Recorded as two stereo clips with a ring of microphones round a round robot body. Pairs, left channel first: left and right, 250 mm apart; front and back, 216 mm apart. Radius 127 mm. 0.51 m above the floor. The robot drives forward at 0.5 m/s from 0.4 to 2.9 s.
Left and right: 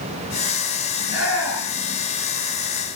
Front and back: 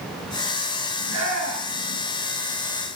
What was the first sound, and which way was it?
A shout, 175° right.